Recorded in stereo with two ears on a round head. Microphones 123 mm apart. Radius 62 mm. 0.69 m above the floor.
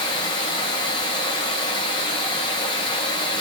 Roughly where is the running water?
Left.